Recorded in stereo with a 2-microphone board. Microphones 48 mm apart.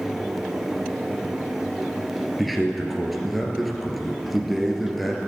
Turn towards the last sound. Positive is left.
turn(degrees=0)  # may be behind; listen again after turning